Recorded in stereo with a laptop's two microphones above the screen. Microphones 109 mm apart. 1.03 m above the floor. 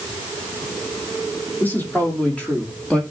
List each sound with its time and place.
1.6 s a man speaking: 15° left (ahead or behind), 3.5 m; by 3.0 s 10° left (ahead or behind), 2 m